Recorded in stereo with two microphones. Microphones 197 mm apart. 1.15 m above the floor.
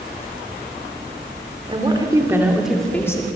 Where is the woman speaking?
25° right (ahead or behind), 3 m; by 3.3 s 20° left (ahead or behind), 2 m.